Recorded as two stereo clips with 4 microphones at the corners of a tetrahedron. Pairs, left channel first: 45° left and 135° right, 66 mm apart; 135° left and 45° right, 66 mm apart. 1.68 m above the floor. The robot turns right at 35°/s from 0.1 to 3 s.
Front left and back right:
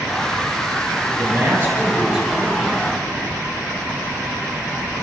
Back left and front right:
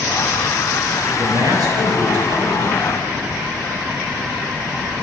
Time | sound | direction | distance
1.1 | a man speaking | 90° right | 8.5 m